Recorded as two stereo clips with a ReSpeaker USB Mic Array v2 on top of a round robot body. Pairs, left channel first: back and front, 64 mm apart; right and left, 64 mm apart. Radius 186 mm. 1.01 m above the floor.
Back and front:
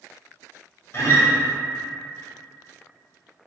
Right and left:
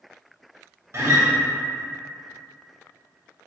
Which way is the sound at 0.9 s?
135° left.